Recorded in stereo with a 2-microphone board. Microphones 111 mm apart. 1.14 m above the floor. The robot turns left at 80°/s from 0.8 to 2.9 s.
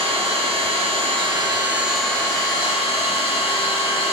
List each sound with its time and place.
0.0 s an engine running: 85° right, 0.8 m; by 4.1 s 105° left, 0.8 m